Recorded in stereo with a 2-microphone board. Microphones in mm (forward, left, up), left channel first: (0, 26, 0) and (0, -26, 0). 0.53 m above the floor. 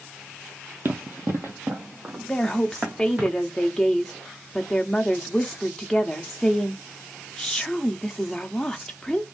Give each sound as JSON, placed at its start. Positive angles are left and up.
{"t": 0.8, "sound": "running footsteps", "side_deg": -50, "distance_m": 0.8}
{"t": 2.3, "sound": "a woman speaking", "side_deg": 15, "distance_m": 0.8}